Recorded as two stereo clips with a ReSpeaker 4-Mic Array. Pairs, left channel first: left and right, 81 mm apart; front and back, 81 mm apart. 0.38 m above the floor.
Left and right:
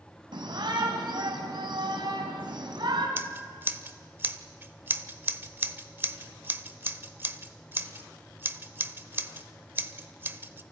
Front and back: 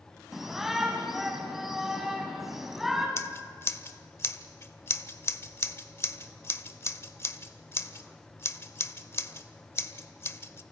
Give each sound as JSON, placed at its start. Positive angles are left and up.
{"t": 0.3, "sound": "a shout", "azimuth_deg": -95, "distance_m": 3.0}
{"t": 3.2, "sound": "scissors", "azimuth_deg": -40, "distance_m": 1.0}